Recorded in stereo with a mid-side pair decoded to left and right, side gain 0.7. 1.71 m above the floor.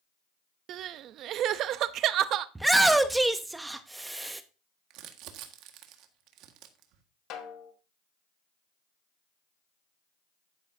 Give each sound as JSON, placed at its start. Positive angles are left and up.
{"t": 0.7, "sound": "crying", "azimuth_deg": -50, "distance_m": 0.7}
{"t": 2.5, "sound": "a shout", "azimuth_deg": -10, "distance_m": 0.8}
{"t": 4.9, "sound": "crumpling", "azimuth_deg": -60, "distance_m": 1.7}
{"t": 7.3, "sound": "a snare drum", "azimuth_deg": 55, "distance_m": 2.0}